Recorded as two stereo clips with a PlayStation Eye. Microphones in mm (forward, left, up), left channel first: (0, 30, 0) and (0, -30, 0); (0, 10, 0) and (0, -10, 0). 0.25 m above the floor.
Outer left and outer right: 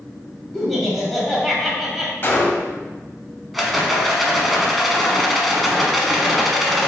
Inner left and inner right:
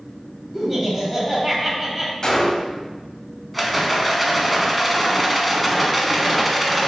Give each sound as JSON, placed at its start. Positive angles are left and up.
{"t": 0.5, "sound": "laughter", "side_deg": 0, "distance_m": 1.0}
{"t": 2.2, "sound": "a gunshot", "side_deg": 35, "distance_m": 0.6}
{"t": 3.5, "sound": "a rattle", "side_deg": 0, "distance_m": 0.7}